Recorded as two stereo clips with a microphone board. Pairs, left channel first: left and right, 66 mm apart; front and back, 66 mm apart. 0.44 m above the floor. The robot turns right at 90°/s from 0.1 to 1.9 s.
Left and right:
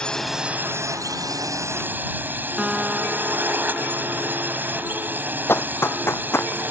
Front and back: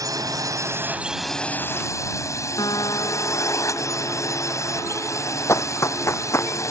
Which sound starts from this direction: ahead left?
Running footsteps, at 5.5 s.